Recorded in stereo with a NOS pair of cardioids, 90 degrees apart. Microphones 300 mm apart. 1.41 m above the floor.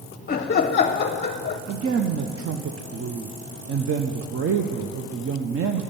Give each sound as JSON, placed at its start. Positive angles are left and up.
{"t": 0.3, "sound": "laughter", "azimuth_deg": 35, "distance_m": 0.7}
{"t": 1.7, "sound": "a woman speaking", "azimuth_deg": -50, "distance_m": 0.9}